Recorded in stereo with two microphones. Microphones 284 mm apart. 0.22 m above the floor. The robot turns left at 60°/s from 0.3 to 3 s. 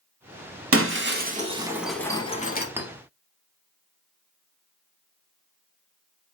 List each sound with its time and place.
0.7 s breaking glass: 50° right (ahead or behind), 0.5 m; by 2.7 s 35° left (ahead or behind), 0.5 m
2.8 s a clink: 10° right (ahead or behind), 0.7 m; by 2.9 s centre (ahead or behind), 0.7 m